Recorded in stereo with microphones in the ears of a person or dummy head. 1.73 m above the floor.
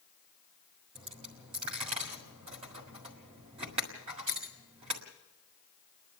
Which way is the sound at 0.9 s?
20° right (ahead or behind).